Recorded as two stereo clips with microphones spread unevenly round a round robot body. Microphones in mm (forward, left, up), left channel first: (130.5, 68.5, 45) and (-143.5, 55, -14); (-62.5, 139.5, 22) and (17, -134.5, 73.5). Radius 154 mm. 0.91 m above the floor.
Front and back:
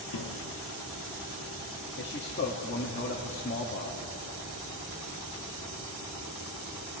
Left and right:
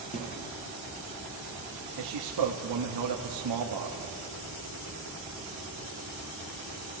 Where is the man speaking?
60° right, 1.7 m.